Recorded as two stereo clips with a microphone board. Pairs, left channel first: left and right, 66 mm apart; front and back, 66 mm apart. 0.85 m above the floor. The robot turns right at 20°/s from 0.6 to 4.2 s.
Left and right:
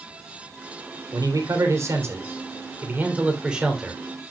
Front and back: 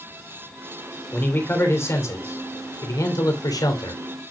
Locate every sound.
1.1 s a man speaking: 60° right, 3 m; by 4.0 s straight ahead, 3 m